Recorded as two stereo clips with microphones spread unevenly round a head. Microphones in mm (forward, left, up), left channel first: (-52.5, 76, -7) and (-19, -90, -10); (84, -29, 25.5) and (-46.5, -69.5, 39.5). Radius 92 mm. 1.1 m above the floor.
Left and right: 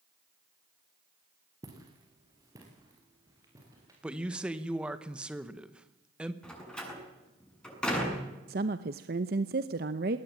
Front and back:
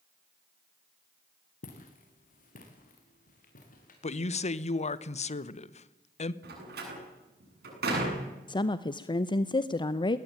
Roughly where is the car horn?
No car horn in this recording.